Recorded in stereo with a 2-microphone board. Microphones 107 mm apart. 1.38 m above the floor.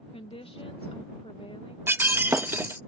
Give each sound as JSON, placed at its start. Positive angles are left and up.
{"t": 0.1, "sound": "a woman speaking", "side_deg": 60}
{"t": 1.9, "sound": "breaking glass", "side_deg": -20}